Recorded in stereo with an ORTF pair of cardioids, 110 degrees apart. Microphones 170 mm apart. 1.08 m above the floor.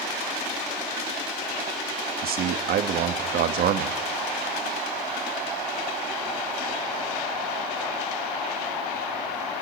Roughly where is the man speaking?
Right.